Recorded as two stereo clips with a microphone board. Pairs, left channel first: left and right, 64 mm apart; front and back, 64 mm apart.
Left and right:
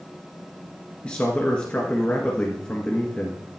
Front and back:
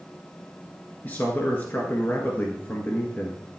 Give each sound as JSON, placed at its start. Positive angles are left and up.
{"t": 1.0, "sound": "a man speaking", "azimuth_deg": 35, "distance_m": 1.6}